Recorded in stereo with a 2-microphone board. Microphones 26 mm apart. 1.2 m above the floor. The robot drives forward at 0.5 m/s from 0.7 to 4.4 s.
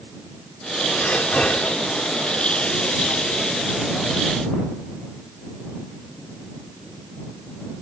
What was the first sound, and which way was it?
Breathing, 60° left (ahead or behind).